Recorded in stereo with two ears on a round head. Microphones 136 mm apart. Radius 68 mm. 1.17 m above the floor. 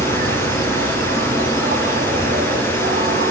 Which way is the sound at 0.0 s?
60° right (ahead or behind).